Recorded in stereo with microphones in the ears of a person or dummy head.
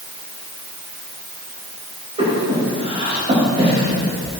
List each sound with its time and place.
2.2 s breathing: 35° right (ahead or behind), 4 m